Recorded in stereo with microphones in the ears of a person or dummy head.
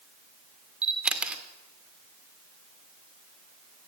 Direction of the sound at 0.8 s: 15° right (ahead or behind).